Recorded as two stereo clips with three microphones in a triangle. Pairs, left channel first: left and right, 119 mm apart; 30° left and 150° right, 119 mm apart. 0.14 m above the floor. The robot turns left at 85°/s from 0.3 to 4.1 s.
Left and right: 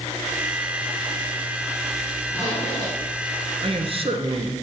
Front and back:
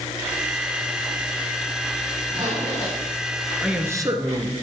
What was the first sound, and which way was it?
A zipper, 165° left.